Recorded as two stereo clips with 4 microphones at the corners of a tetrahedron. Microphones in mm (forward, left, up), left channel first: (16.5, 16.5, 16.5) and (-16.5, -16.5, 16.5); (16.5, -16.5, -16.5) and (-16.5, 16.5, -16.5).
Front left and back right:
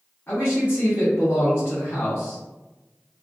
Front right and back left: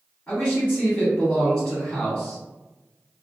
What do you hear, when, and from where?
0.3 s a man speaking: 5° left, 1.9 m